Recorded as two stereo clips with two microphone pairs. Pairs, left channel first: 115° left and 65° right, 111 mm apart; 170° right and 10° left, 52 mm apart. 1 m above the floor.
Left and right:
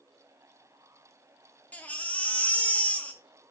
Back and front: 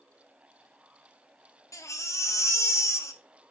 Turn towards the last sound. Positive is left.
turn(degrees=-170)